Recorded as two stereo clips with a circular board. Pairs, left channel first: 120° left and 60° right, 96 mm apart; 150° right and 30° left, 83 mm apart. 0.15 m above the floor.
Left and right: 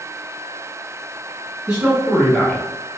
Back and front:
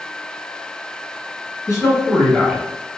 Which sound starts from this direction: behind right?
A man speaking, at 1.7 s.